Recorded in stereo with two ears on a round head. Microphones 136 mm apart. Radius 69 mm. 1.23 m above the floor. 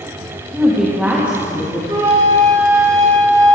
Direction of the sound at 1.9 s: 20° right (ahead or behind).